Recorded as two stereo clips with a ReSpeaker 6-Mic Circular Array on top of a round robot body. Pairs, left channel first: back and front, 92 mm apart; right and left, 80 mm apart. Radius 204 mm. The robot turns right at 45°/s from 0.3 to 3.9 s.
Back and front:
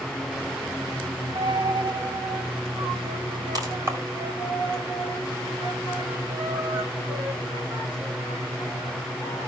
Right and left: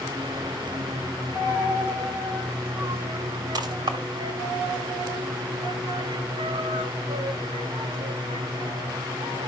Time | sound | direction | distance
1.4 | a dropped coin | 50° right | 1.4 m